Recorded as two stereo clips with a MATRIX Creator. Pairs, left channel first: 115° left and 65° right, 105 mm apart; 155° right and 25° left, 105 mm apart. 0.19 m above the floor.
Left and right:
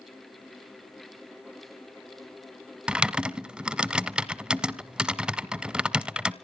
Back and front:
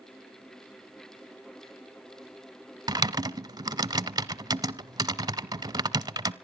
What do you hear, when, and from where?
2.9 s typing on a keyboard: 10° left, 0.6 m